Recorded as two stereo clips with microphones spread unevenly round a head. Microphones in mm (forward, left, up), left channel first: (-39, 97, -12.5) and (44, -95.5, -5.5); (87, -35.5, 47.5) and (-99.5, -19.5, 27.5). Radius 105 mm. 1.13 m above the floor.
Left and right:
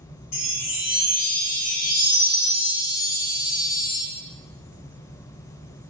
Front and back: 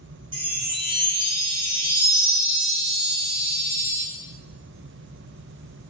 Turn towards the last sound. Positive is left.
turn(degrees=105)